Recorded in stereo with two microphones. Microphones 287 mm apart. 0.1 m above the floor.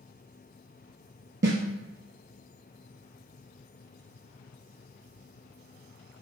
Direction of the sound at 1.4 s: 40° right (ahead or behind).